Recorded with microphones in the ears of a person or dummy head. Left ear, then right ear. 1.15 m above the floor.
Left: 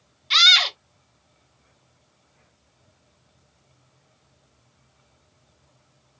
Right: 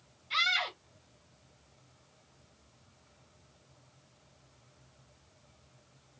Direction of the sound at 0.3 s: 45° left (ahead or behind).